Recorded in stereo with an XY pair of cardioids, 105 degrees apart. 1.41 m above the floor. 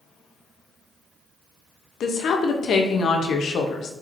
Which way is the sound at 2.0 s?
60° left.